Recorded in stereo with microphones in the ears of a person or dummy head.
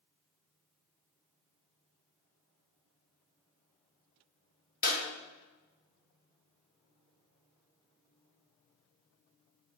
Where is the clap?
45° left (ahead or behind), 2.5 m.